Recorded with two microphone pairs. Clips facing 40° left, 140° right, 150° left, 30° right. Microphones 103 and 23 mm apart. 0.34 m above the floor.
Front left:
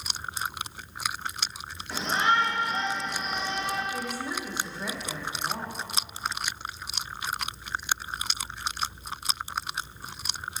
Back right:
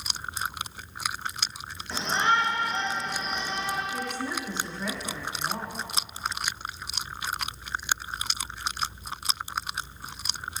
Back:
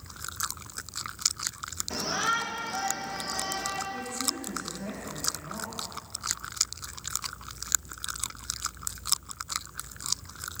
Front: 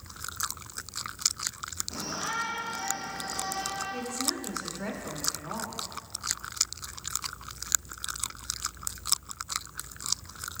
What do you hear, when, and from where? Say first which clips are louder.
1.9 s a shout: even, back 6 dB; 125° left, 4.5 m
3.9 s a woman speaking: back right 1 dB, front 1 dB; 40° right, 4 m